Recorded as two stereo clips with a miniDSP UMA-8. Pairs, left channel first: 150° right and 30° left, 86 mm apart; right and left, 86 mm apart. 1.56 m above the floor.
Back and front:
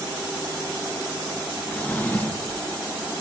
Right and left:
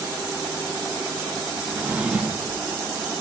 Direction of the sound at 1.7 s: 155° left.